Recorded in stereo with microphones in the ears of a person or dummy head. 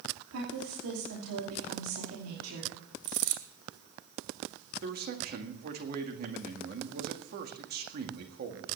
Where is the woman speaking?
85° right, 3 m.